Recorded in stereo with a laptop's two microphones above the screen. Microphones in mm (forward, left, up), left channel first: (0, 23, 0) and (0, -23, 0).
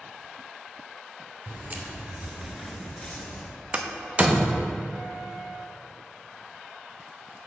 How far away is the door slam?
About 0.6 m.